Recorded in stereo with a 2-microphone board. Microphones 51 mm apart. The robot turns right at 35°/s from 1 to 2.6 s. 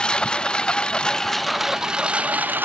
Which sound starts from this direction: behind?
A lawn mower, at 0.0 s.